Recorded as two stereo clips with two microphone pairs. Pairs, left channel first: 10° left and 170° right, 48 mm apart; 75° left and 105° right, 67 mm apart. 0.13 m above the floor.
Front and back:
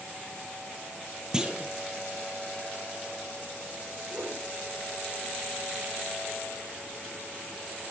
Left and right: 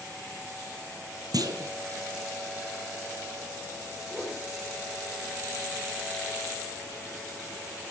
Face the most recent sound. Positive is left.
turn(degrees=155)